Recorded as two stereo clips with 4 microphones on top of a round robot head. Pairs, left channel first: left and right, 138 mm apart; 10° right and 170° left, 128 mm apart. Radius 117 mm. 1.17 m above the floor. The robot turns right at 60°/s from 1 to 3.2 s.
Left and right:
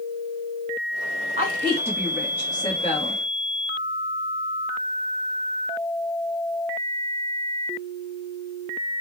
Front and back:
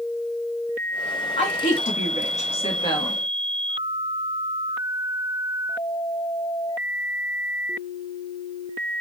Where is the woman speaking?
45° right, 1.2 m; by 3.2 s 65° left, 1.2 m.